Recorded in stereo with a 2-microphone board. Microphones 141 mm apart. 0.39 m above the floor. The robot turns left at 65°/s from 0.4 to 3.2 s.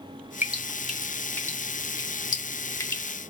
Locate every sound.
0.4 s dripping: 15° right (ahead or behind), 0.6 m; by 3.0 s 15° left (ahead or behind), 0.6 m